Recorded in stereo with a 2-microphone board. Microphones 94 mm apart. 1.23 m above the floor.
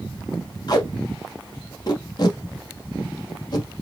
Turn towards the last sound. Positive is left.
turn(degrees=45)  # may be behind; listen again after turning